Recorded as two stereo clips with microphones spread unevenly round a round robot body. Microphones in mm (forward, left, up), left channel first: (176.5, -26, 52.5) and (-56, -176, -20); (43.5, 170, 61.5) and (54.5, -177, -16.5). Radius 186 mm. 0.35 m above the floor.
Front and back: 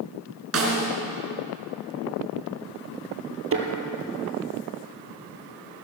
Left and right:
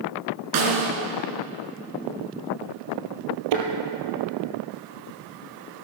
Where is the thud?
105° right, 1.9 m.